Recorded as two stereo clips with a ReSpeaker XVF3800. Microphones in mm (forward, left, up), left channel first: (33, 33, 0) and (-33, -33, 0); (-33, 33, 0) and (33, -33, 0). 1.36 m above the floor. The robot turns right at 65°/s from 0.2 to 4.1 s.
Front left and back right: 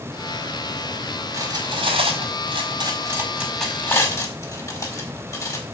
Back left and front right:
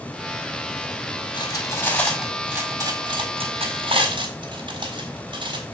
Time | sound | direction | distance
1.3 | cutlery clinking | 170° left | 4 m